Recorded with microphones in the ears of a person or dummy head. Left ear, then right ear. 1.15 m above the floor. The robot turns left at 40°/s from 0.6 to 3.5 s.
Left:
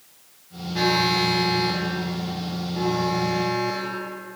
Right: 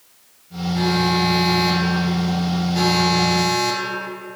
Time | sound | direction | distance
0.8 | an alarm | 20° left | 2.5 m